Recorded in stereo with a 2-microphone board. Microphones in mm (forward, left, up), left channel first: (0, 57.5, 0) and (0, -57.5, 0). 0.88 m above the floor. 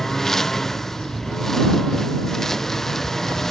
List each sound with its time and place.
0.0 s a lawn mower: 5° left (ahead or behind)